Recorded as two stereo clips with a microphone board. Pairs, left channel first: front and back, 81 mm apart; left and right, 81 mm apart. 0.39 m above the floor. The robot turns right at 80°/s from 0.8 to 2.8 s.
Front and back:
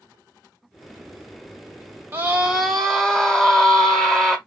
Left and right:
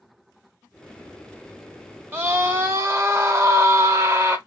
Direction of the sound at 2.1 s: 140° right.